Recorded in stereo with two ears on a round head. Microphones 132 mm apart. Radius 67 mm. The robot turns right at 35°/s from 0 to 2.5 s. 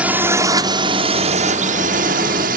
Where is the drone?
170° right; by 2.6 s 85° right.